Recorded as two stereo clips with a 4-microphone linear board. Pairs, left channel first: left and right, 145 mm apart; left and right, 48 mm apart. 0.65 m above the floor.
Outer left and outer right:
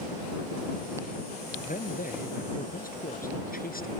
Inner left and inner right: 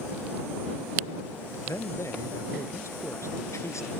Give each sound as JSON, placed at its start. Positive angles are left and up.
{"t": 1.7, "sound": "a man speaking", "side_deg": 70}